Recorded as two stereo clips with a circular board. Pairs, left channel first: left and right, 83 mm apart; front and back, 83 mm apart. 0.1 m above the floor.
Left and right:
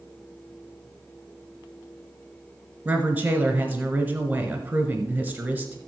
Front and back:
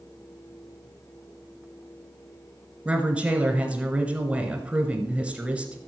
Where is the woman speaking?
130° right, 1.2 m.